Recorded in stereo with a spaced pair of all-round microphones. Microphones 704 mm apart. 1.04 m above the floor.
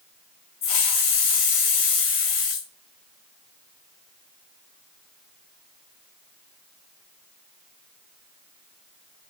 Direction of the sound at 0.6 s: 55° left (ahead or behind).